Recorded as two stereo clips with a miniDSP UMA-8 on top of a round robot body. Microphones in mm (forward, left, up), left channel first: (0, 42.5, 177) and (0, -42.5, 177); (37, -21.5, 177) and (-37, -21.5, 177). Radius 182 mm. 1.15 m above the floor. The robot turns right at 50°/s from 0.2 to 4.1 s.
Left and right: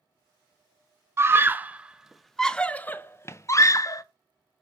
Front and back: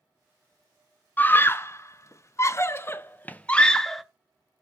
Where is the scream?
50° right, 0.6 m; by 4.0 s 90° left, 0.6 m.